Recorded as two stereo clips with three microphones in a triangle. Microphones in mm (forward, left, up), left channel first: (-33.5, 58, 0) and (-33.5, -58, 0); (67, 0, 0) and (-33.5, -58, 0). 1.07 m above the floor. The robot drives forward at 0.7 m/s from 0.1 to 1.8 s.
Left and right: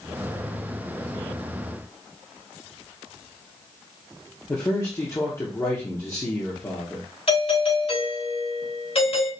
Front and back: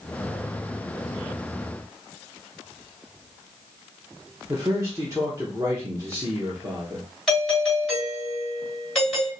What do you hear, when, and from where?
4.5 s a man speaking: 150° left, 1.1 m
7.3 s a doorbell: 115° left, 3.5 m